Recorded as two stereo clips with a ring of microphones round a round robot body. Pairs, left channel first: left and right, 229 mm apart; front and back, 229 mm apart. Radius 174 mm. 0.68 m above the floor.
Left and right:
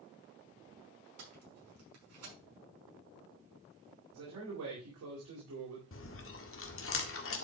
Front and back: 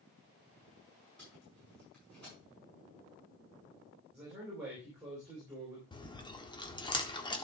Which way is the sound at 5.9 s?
70° left.